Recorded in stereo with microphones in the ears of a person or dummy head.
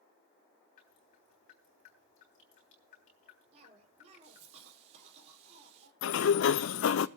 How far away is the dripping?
About 3.5 m.